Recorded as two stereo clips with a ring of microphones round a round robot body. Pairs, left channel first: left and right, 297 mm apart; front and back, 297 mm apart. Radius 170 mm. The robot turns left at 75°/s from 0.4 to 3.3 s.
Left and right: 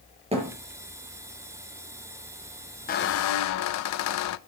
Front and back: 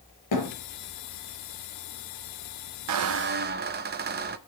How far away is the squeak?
About 0.6 m.